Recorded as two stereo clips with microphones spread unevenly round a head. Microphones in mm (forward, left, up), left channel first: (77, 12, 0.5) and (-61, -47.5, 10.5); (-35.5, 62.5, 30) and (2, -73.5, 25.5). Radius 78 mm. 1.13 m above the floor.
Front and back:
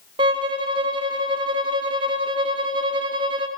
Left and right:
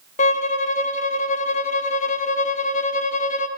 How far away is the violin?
About 0.8 m.